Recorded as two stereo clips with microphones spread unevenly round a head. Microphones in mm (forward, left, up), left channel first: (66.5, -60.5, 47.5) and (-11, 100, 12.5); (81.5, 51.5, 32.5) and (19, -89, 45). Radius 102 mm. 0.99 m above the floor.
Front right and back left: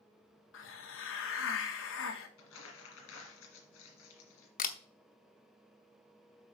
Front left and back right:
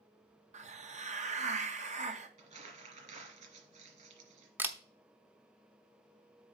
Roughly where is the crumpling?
Right.